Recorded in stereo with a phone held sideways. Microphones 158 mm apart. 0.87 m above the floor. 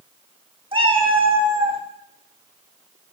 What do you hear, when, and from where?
0.7 s a cat meowing: 35° right (ahead or behind), 1.3 m